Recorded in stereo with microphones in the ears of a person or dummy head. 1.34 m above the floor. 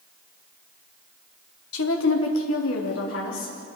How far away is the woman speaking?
About 1.7 m.